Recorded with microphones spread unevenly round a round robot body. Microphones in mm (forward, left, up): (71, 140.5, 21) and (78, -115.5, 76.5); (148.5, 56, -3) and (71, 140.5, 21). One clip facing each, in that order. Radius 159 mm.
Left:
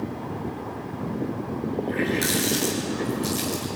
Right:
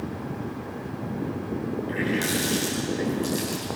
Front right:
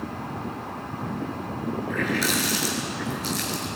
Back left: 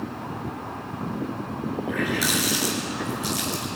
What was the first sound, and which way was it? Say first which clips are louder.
A running tap: left 1 dB, even; straight behind.